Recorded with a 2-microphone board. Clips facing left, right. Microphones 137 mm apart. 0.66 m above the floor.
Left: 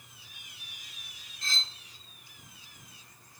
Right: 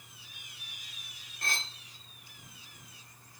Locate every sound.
1.4 s cutlery clinking: 60° right (ahead or behind), 1.0 m